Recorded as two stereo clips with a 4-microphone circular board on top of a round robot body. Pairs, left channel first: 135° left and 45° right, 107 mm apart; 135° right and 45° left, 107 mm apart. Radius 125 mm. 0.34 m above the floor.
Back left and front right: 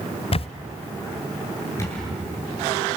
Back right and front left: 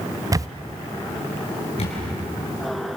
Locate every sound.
0.3 s a camera shutter: 105° left, 0.5 m
1.8 s a camera shutter: 160° right, 7.5 m